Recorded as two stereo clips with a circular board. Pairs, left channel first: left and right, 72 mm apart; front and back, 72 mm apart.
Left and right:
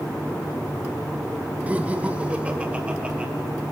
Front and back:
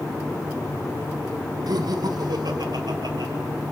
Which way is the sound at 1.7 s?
160° right.